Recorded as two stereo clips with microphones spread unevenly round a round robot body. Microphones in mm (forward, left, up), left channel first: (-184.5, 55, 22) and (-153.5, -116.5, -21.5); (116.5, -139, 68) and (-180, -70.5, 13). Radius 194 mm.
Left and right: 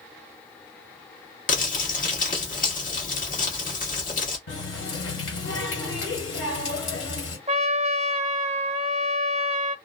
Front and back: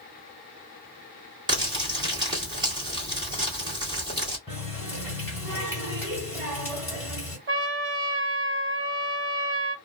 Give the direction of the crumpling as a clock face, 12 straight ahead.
8 o'clock.